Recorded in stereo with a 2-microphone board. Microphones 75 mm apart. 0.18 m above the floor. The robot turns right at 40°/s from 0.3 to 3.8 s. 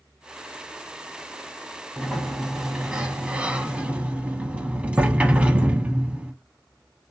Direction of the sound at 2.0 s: Centre (ahead or behind).